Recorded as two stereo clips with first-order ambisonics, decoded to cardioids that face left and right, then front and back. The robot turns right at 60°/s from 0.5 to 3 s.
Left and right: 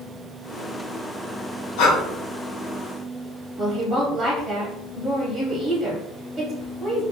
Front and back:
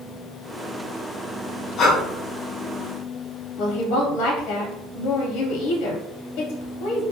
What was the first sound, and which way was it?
Breathing, 60° left.